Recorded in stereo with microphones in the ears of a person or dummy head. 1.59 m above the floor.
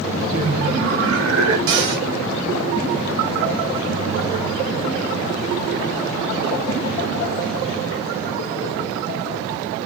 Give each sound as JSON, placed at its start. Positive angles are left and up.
{"t": 0.3, "sound": "laughter", "side_deg": -85, "distance_m": 3.5}
{"t": 1.7, "sound": "a cupboard door", "side_deg": -65, "distance_m": 2.5}